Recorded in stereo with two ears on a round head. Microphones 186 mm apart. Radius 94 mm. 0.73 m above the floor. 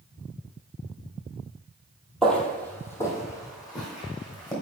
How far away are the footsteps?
About 1.2 m.